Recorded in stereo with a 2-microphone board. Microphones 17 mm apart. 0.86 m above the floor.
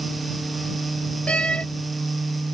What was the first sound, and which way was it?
A door slam, 80° left.